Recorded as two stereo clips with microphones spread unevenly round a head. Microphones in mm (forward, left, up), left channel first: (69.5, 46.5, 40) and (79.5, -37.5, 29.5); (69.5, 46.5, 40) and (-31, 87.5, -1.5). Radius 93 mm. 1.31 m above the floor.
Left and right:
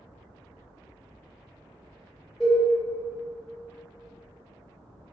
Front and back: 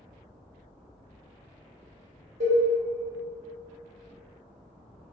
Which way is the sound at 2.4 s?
175° right.